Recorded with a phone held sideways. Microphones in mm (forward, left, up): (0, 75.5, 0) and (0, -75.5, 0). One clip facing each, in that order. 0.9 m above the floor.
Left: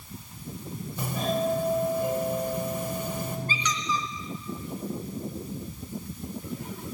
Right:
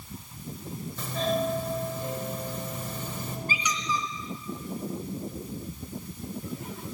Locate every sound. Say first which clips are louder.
1.0 s a doorbell: even; 15° left (ahead or behind), 5.5 m
3.5 s a squeak: left 1 dB; 10° right (ahead or behind), 3.5 m